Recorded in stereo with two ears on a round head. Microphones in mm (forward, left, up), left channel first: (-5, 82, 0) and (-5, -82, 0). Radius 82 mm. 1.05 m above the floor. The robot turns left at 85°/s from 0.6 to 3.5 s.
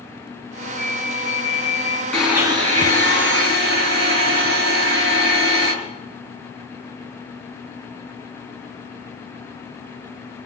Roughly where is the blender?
Ahead.